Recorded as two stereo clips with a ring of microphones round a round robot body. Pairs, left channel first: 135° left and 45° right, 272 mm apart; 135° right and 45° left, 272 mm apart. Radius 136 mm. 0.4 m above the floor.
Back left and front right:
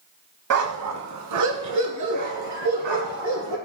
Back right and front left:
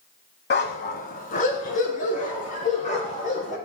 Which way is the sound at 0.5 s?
80° right.